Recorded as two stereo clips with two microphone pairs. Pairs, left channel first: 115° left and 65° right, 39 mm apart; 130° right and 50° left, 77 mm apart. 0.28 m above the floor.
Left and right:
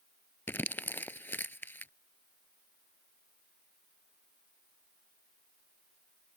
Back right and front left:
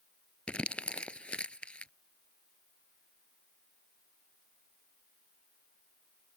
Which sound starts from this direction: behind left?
Crumpling, at 0.5 s.